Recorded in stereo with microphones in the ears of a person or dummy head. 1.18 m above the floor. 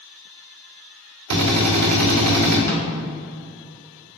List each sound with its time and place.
1.3 s a drill: 85° right, 3 m
2.7 s a snare drum: 15° left (ahead or behind), 1.8 m